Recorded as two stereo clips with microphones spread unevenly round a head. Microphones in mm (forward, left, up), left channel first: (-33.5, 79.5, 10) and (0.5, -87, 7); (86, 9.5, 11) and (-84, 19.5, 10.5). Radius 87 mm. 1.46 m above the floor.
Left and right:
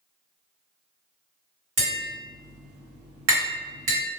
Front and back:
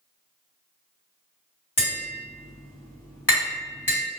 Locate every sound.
1.8 s tapping: 85° right, 1.6 m